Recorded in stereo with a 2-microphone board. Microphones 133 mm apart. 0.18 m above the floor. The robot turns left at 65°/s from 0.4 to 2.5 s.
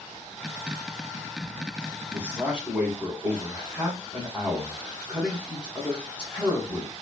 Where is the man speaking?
15° right (ahead or behind), 1.4 m; by 6.9 s 5° right (ahead or behind), 1.4 m.